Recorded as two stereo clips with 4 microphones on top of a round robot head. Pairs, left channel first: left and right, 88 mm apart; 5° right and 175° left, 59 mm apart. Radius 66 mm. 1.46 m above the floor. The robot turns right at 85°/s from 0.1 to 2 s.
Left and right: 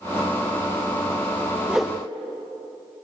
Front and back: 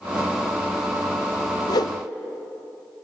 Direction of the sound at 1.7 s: 10° right.